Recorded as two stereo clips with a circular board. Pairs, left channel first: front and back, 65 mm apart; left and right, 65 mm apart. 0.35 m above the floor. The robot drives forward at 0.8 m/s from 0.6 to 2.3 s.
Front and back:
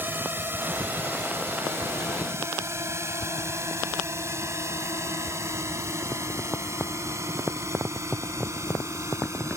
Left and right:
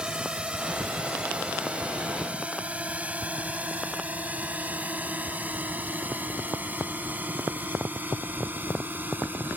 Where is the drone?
155° right; by 9.6 s 145° right.